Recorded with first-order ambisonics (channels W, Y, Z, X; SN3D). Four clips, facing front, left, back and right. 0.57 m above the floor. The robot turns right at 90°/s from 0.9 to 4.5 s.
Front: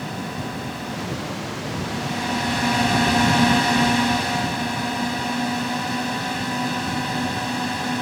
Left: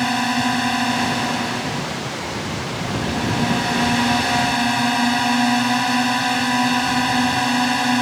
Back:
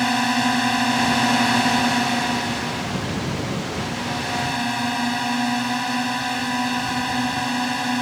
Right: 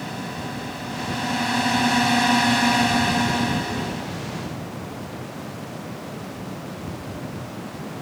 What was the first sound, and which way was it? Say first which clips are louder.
A drone: left 12 dB, back 10 dB; 135° left.